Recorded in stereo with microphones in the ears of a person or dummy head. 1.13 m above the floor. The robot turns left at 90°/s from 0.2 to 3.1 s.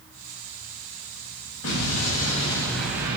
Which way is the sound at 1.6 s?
105° left.